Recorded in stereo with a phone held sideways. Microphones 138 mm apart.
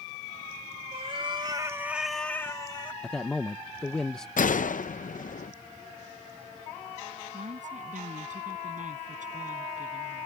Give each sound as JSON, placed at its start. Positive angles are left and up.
{"t": 0.9, "sound": "a cat meowing", "side_deg": -50}
{"t": 3.0, "sound": "a man speaking", "side_deg": 5}
{"t": 4.4, "sound": "a gunshot", "side_deg": 75}
{"t": 7.3, "sound": "a woman speaking", "side_deg": -70}